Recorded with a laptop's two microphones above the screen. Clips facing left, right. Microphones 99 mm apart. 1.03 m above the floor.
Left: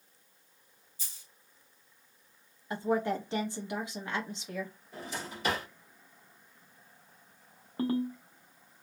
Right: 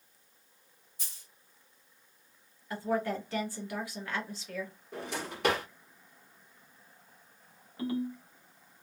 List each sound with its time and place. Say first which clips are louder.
1.0 s a dropped coin: right 1 dB; 75° right (ahead or behind), 2 m
2.7 s a woman speaking: left 2 dB; 20° left (ahead or behind), 0.9 m
4.9 s a drawer: right 3 dB; 75° right (ahead or behind), 1.5 m
7.8 s a ringtone: left 3 dB; 45° left (ahead or behind), 0.7 m